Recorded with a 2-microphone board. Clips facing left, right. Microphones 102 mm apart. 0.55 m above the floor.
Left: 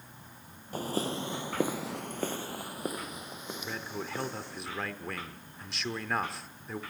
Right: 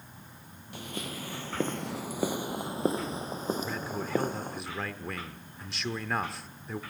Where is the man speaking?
Centre (ahead or behind), 1.1 m.